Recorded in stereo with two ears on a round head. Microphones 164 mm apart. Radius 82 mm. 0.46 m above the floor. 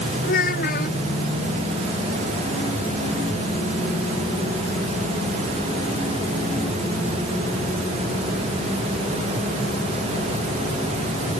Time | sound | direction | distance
0.2 | a child speaking | 50° left (ahead or behind) | ?